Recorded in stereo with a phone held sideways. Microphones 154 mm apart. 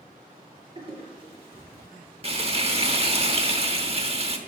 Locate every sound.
0.8 s a toilet flushing: 35° right (ahead or behind), 5.5 m
2.2 s frying: 40° right (ahead or behind), 1.1 m